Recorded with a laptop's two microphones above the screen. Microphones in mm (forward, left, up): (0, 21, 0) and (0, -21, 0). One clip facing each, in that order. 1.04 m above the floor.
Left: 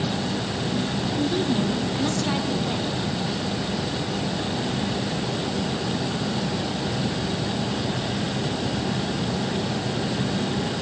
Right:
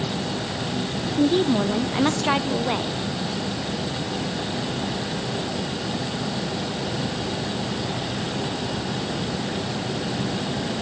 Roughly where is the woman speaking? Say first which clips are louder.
Right 6 dB; right.